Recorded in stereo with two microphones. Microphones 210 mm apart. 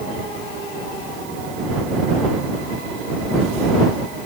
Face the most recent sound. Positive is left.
No sound to turn to.